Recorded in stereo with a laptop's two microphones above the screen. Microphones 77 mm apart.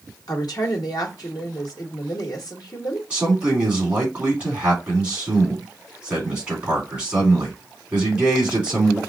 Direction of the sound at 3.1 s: 20° right (ahead or behind).